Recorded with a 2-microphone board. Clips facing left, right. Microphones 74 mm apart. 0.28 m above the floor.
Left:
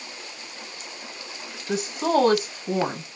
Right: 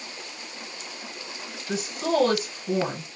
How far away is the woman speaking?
About 1.1 m.